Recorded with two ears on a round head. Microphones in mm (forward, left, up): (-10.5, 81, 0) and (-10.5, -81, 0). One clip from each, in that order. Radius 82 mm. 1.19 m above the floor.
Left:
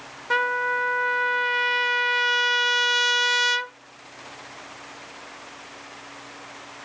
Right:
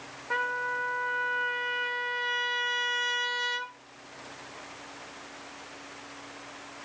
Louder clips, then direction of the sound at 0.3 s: Left 7 dB; 70° left (ahead or behind).